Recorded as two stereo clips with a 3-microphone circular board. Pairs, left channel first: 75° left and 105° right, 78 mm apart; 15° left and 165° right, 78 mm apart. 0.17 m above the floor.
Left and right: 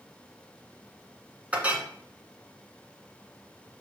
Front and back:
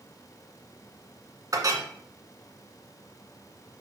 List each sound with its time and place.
1.5 s a clink: 170° right, 1.4 m